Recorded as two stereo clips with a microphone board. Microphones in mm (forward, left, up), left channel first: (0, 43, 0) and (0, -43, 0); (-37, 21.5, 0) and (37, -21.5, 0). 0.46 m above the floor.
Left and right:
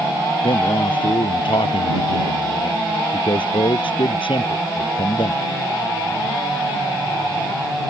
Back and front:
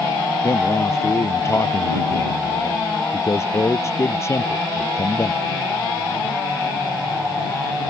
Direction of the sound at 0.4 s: 90° left.